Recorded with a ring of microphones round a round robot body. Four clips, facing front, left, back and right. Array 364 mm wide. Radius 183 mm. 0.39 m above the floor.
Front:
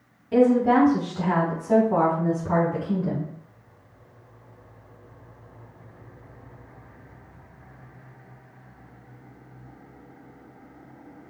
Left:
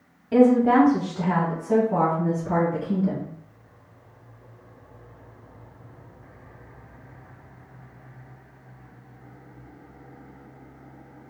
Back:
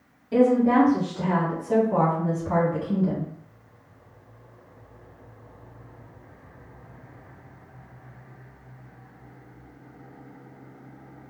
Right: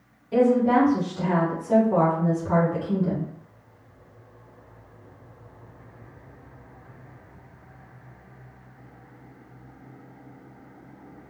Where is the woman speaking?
75° left, 1.1 m; by 3.3 s 35° right, 1.6 m.